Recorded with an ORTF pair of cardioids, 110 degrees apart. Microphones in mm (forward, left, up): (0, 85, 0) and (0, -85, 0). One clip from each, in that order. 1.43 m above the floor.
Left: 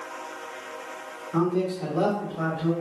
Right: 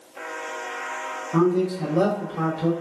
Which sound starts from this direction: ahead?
A man speaking, at 1.3 s.